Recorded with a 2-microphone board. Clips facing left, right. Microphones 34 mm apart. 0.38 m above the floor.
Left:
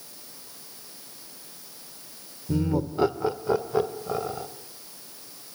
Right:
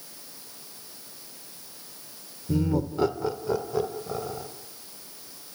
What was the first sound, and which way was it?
Laughter, 5° right (ahead or behind).